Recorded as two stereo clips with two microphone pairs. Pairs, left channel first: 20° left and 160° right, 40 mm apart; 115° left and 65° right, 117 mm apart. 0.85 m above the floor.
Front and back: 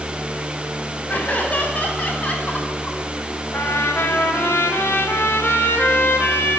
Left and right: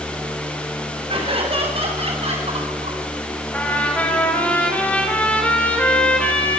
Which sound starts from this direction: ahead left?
A trumpet, at 3.5 s.